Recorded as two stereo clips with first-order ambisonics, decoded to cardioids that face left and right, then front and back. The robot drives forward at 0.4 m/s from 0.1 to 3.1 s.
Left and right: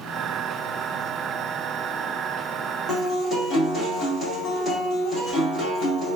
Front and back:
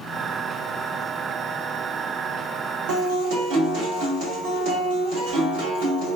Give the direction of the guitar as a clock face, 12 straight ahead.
6 o'clock.